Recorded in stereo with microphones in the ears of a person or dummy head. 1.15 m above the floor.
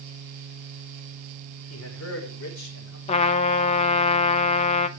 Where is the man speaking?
75° left (ahead or behind), 4.5 m; by 3.0 s 70° left (ahead or behind), 5.5 m.